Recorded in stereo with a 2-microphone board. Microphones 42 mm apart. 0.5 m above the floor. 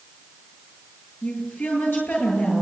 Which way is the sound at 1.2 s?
55° left (ahead or behind).